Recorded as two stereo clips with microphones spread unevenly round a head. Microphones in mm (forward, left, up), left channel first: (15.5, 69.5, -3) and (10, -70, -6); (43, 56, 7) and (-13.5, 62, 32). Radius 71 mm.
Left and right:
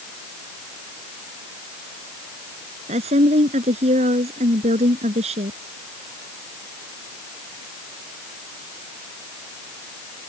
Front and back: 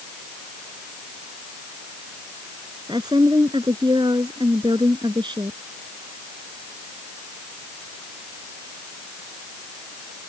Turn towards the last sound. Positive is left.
turn(degrees=-140)